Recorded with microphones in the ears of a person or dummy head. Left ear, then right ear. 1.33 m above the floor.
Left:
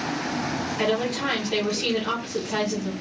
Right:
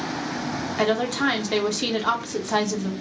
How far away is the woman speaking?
About 0.6 m.